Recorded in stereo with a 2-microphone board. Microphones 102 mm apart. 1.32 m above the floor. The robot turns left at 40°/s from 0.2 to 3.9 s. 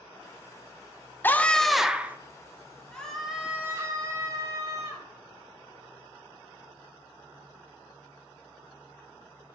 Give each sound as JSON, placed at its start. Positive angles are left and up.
{"t": 1.2, "sound": "a scream", "azimuth_deg": 20, "distance_m": 0.8}
{"t": 2.9, "sound": "a scream", "azimuth_deg": 10, "distance_m": 3.0}